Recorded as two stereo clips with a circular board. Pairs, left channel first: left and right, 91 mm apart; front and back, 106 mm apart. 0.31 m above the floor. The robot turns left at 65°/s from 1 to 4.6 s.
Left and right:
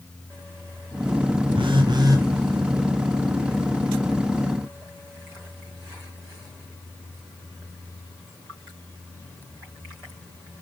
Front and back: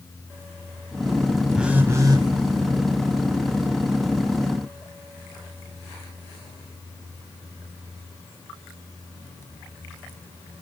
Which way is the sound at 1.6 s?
95° right.